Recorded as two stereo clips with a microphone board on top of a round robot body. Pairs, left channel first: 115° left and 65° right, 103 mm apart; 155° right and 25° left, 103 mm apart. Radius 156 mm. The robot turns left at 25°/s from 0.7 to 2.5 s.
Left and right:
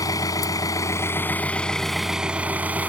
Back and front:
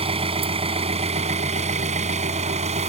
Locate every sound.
0.0 s an engine running: 55° left; by 2.9 s 10° left